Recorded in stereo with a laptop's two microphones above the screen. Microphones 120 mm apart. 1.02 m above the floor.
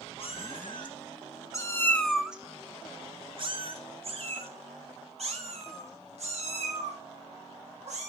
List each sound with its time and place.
0.2 s a cat meowing: 50° left (ahead or behind), 2.0 m; by 8.1 s 70° right (ahead or behind), 5 m